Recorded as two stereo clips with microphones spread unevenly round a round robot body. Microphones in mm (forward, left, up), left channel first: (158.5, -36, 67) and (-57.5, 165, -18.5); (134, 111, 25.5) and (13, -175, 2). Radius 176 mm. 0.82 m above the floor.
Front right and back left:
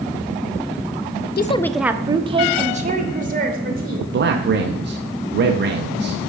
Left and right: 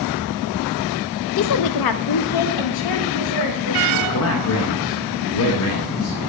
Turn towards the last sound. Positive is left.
turn(degrees=110)